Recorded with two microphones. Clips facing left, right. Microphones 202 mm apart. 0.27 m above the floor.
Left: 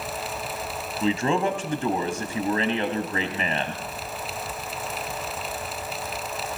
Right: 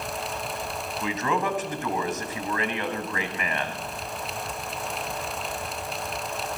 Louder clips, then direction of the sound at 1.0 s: Left 5 dB; 30° left (ahead or behind).